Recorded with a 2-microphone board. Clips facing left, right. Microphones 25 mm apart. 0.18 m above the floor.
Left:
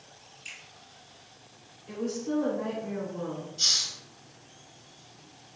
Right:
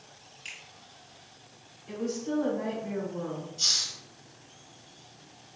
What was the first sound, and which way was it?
A finger snap, 35° right (ahead or behind).